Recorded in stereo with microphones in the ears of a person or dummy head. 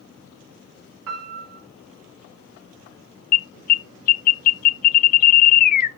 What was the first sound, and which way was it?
A piano, 80° right.